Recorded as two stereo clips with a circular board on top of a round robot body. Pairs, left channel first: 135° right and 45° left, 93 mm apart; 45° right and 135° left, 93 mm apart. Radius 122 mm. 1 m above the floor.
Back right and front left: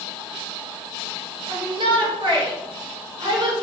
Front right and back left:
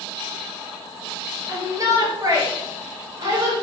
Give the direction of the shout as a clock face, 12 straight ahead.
9 o'clock.